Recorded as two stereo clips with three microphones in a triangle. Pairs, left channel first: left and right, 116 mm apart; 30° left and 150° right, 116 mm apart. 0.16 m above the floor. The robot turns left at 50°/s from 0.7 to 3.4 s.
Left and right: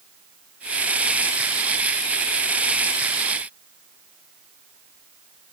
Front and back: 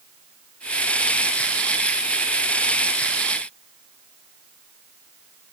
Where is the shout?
I don't hear a shout.